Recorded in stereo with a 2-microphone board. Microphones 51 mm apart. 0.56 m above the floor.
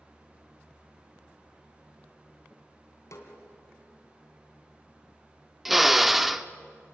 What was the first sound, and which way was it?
A snare drum, 80° left.